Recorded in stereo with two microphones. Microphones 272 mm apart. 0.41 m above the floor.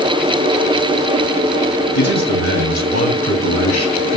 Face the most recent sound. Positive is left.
turn(degrees=65)  # may be behind; listen again after turning